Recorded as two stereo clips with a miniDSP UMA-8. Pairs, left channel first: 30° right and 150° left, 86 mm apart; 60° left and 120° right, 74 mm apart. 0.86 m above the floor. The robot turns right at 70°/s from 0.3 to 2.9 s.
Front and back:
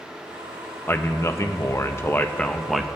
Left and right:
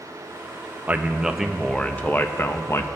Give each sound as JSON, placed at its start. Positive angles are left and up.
{"t": 0.9, "sound": "a man speaking", "azimuth_deg": -75, "distance_m": 0.7}